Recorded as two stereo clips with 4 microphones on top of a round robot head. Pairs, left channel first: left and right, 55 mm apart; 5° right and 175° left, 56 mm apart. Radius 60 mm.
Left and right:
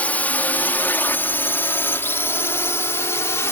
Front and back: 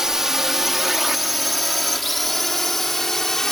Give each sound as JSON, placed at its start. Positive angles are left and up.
{"t": 0.0, "sound": "a drone", "azimuth_deg": 100}